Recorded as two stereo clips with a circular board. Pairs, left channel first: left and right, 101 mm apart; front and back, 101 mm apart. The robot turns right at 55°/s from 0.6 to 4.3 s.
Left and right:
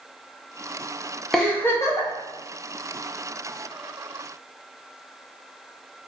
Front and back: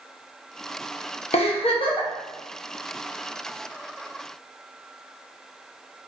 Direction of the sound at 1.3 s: Straight ahead.